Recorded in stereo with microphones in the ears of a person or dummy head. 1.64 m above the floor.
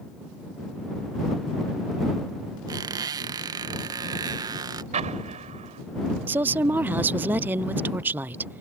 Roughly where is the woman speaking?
Centre.